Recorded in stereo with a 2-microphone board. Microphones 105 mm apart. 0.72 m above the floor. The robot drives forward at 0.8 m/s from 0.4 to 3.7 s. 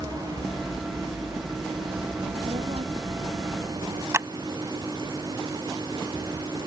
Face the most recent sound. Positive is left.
turn(degrees=-25)  # may be behind; listen again after turning